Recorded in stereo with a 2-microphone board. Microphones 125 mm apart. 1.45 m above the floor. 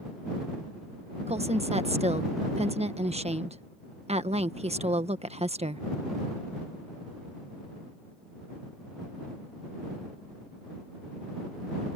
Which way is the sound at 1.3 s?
55° right (ahead or behind).